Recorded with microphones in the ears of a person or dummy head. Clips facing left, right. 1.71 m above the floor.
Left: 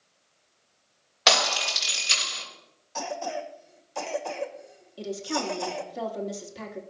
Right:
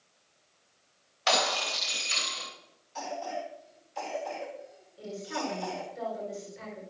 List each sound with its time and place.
1.3 s breaking glass: 75° left (ahead or behind), 6 m
3.0 s a cough: 65° left (ahead or behind), 1.8 m
5.0 s a woman speaking: 80° left, 3 m